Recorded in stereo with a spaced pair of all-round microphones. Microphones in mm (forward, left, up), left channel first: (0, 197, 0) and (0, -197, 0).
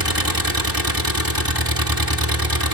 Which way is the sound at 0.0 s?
60° right (ahead or behind).